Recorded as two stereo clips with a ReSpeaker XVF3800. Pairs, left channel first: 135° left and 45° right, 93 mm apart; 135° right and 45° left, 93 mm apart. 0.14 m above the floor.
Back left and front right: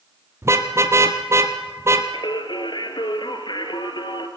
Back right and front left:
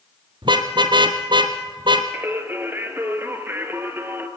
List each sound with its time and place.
0.4 s a car horn: 15° left, 2 m
2.1 s singing: 110° left, 2.5 m